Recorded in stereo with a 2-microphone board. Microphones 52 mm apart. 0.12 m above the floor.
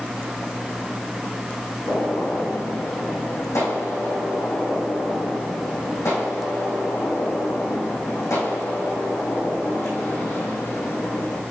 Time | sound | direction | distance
1.9 | a gunshot | 75° left (ahead or behind) | 4 m